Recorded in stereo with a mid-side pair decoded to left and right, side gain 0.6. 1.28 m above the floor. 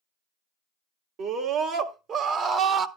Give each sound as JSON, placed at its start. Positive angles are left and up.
{"t": 1.2, "sound": "a scream", "azimuth_deg": -60, "distance_m": 1.9}